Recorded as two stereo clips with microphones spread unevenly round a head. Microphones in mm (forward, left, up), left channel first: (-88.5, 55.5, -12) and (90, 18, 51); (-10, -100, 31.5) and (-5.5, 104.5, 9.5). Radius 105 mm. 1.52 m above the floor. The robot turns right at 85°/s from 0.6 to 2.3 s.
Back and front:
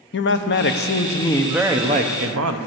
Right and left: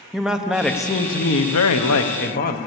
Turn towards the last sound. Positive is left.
turn(degrees=-40)